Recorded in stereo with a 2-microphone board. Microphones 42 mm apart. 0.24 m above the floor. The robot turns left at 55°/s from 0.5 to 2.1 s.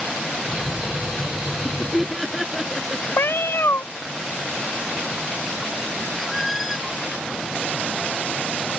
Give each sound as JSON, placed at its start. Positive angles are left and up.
{"t": 1.5, "sound": "laughter", "side_deg": 25}
{"t": 3.2, "sound": "a cat meowing", "side_deg": 70}
{"t": 6.1, "sound": "a squeak", "side_deg": 0}